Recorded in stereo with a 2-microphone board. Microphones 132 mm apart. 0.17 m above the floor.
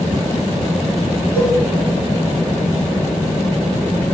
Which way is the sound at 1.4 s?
15° right (ahead or behind).